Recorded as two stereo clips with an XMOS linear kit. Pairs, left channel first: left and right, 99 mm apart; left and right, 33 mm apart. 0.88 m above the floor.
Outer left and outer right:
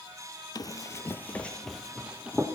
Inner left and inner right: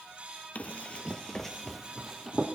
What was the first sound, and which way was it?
Running footsteps, 45° left (ahead or behind).